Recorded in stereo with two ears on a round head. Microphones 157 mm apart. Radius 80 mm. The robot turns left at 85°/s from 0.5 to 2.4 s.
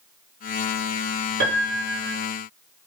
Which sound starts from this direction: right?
A piano, at 1.4 s.